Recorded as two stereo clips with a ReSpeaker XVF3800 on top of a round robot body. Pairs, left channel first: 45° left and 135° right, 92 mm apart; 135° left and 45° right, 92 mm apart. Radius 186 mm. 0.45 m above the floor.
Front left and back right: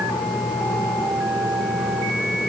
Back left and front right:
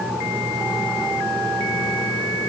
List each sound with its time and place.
Only background noise.